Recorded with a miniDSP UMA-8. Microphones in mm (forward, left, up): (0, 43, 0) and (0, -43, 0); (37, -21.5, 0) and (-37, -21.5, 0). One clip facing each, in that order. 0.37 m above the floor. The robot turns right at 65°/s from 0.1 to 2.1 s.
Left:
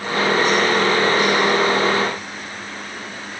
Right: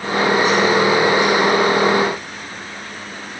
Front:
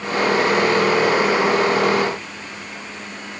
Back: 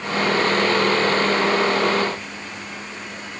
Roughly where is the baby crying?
I don't hear a baby crying.